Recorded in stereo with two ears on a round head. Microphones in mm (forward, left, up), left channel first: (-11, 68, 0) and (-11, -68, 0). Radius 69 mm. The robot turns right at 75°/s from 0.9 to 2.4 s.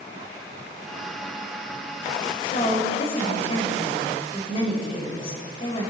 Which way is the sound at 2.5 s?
40° left (ahead or behind).